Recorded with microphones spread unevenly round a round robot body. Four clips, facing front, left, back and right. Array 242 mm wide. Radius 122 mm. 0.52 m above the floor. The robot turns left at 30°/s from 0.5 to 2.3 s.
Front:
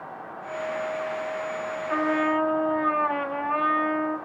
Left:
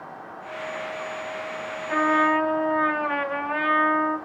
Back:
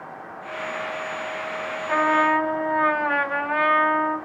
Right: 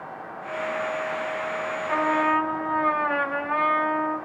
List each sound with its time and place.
1.9 s a trumpet: 175° right, 2 m; by 4.2 s 175° left, 2 m